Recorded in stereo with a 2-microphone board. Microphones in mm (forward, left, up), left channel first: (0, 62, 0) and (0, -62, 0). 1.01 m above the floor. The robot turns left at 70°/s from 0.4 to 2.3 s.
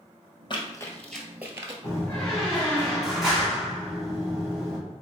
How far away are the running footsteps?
About 1.2 m.